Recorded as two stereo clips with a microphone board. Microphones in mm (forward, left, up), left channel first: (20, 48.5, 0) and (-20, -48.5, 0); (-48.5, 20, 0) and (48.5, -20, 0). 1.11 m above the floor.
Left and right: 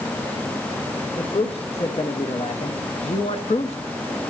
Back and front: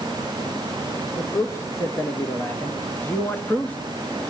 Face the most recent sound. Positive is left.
turn(degrees=85)